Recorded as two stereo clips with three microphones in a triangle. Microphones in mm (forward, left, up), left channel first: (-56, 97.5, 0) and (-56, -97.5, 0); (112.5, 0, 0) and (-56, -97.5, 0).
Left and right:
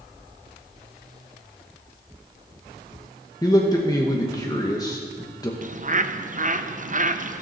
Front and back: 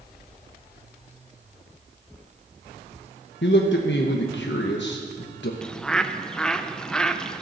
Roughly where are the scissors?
No scissors in this recording.